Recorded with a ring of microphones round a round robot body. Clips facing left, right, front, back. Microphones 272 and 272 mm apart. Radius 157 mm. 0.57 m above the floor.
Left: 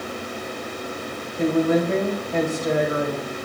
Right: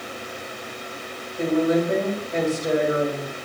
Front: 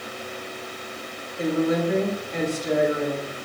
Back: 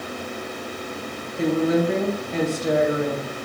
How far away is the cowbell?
I don't hear a cowbell.